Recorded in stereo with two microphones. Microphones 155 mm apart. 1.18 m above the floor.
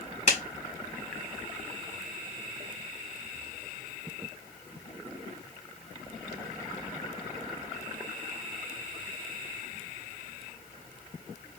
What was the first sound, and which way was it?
A clap, 50° left (ahead or behind).